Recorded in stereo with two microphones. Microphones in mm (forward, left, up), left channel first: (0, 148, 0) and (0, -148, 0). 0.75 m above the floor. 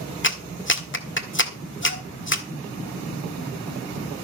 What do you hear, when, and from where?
0.2 s a clap: 40° left (ahead or behind), 1.6 m